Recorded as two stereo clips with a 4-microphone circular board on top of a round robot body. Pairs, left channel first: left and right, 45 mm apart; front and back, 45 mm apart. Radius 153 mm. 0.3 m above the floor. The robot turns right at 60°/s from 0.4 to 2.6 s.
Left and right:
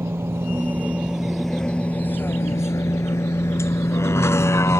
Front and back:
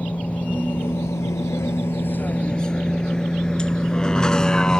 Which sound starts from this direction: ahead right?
A vehicle, at 0.0 s.